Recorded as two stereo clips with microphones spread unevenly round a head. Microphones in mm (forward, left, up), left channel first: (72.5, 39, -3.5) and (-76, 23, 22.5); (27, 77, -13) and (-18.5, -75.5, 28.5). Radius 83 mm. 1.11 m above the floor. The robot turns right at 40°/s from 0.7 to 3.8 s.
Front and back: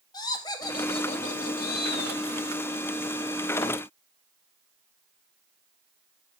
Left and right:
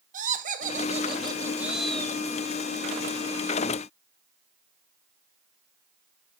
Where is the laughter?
60° right, 2 m; by 2.2 s straight ahead, 2 m.